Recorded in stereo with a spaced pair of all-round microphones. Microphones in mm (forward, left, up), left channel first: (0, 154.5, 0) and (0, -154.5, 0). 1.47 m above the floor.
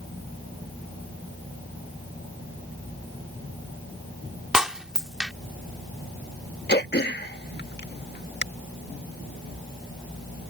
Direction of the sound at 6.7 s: 35° left (ahead or behind).